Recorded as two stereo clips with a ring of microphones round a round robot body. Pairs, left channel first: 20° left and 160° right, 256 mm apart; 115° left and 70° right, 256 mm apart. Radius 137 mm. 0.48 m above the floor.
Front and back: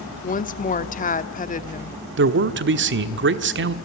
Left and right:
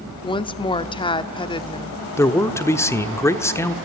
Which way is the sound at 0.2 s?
55° left.